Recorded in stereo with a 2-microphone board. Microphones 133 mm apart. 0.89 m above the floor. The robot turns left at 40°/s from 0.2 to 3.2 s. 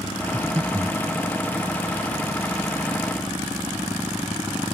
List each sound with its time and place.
0.3 s breathing: 10° right (ahead or behind); by 1.0 s 35° right (ahead or behind)